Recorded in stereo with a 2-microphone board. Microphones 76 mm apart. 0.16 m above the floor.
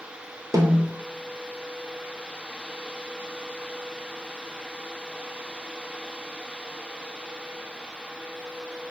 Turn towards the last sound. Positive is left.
turn(degrees=-45)  # may be behind; listen again after turning